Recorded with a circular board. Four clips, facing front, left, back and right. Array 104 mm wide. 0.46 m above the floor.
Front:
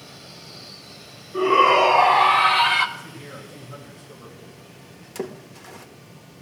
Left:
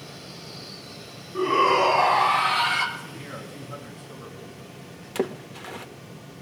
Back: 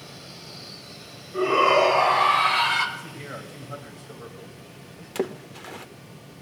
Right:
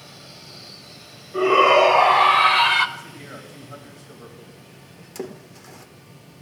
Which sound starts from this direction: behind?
A man speaking, at 3.0 s.